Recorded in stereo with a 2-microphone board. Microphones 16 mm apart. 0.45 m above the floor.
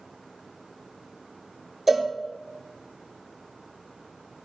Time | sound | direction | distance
1.9 | a cowbell | 10° right (ahead or behind) | 0.9 m